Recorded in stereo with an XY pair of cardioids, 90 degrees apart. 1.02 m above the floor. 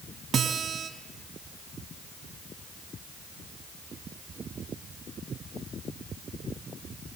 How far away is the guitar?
About 3 m.